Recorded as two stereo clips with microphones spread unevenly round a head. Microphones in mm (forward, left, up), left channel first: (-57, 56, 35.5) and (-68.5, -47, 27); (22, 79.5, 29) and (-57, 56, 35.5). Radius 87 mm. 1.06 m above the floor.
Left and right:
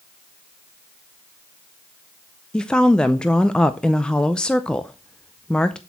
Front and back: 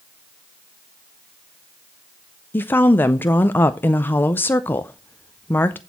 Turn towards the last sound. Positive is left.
turn(degrees=0)